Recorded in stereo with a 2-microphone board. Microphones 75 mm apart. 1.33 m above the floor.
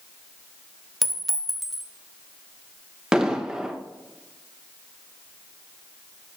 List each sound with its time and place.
1.0 s a clink: centre (ahead or behind), 0.7 m
3.1 s an explosion: 10° right (ahead or behind), 0.9 m